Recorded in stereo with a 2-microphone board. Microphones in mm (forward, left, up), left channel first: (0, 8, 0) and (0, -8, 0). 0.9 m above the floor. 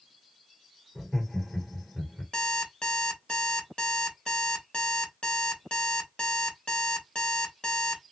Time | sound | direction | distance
0.9 | laughter | 75° left (ahead or behind) | 3 m
2.3 | an alarm clock | 80° left | 2 m